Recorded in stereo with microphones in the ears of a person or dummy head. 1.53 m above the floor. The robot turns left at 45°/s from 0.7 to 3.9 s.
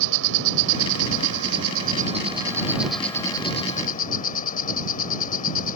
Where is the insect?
80° right; by 5.8 s 140° left.